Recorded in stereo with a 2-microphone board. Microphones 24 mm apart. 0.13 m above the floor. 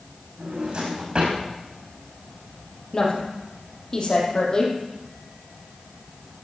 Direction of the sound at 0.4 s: 45° right (ahead or behind).